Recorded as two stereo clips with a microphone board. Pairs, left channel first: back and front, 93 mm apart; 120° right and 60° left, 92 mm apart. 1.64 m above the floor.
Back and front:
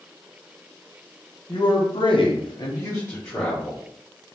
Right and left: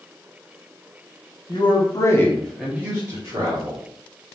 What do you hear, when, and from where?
1.5 s a man speaking: 140° right, 1.4 m; by 3.8 s 100° left, 2 m